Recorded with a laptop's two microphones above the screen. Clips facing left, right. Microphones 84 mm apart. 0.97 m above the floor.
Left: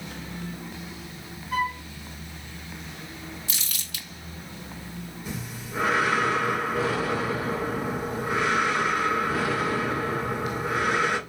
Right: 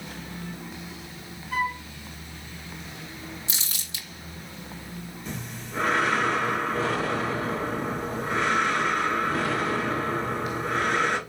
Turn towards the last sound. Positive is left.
turn(degrees=10)  # may be behind; listen again after turning